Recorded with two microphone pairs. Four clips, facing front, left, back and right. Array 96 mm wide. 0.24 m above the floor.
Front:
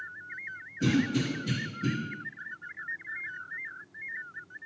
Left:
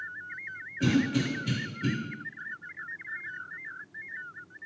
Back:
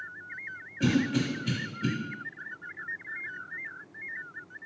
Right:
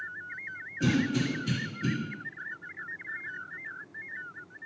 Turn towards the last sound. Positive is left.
turn(degrees=180)